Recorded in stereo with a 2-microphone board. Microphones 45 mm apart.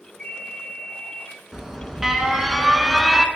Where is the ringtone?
10° right (ahead or behind), 3 m.